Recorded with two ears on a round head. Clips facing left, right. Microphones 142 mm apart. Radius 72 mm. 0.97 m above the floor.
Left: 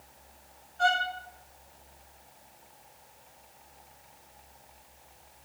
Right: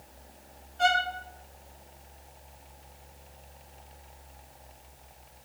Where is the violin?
20° right (ahead or behind), 2.5 m.